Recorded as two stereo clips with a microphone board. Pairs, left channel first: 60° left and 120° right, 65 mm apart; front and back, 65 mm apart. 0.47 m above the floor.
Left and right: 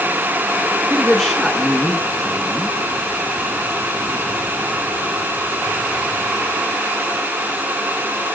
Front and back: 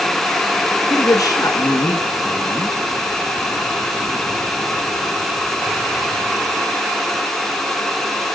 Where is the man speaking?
25° right, 5 m.